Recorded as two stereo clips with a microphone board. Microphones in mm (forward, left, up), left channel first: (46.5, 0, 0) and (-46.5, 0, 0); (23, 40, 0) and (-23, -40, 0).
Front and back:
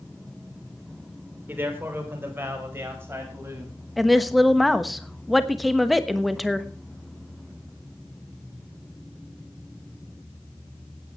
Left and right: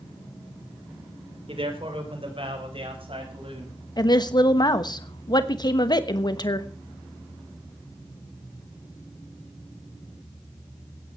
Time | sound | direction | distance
1.5 | a man speaking | 115° right | 3 m
4.0 | a woman speaking | 90° left | 1.1 m